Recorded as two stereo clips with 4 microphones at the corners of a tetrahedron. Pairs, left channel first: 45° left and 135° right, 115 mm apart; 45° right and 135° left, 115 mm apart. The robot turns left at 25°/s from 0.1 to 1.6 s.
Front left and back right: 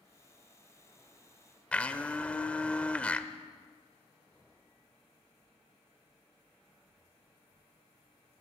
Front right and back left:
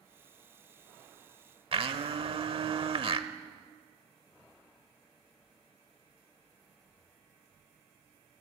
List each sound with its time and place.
1.7 s a blender: 120° left, 0.9 m